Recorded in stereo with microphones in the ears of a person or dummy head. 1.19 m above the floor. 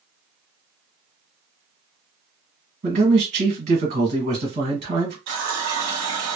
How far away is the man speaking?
About 1.3 m.